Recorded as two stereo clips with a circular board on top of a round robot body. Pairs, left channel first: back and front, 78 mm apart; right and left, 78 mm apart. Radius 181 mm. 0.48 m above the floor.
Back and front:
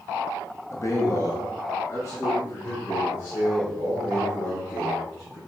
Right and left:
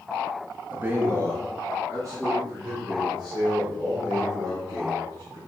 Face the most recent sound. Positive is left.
turn(degrees=125)